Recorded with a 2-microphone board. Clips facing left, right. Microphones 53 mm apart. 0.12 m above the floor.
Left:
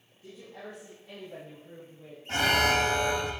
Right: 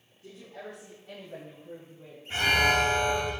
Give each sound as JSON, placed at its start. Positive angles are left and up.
{"t": 0.2, "sound": "a woman speaking", "side_deg": 5, "distance_m": 6.0}
{"t": 2.3, "sound": "an alarm", "side_deg": 70, "distance_m": 5.5}